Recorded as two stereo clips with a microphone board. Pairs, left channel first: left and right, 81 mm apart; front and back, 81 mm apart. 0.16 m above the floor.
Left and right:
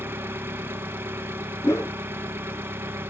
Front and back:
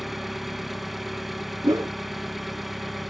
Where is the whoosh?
140° left, 0.8 m.